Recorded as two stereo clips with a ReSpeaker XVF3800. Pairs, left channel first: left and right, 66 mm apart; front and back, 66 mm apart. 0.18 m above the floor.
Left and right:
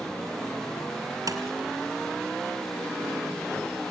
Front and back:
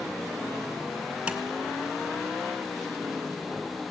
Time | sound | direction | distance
1.3 | tapping | 105° right | 2.5 m